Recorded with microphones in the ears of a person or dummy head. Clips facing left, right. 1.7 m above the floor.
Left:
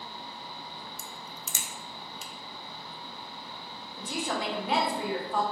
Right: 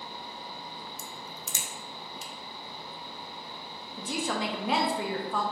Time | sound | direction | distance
1.0 | a crack | 75° left (ahead or behind) | 0.6 m
4.0 | a woman speaking | 50° right (ahead or behind) | 0.8 m